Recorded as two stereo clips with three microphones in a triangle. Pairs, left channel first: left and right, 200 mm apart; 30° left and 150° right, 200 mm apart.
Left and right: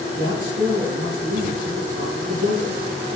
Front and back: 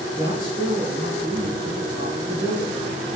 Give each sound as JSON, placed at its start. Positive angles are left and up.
{"t": 0.1, "sound": "a woman speaking", "azimuth_deg": -85, "distance_m": 3.0}